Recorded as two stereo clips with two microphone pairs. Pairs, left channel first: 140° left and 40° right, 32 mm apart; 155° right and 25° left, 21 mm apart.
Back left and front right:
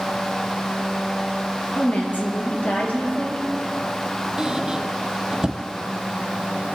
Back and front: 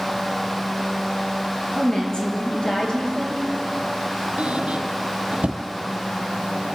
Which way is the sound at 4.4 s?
20° left.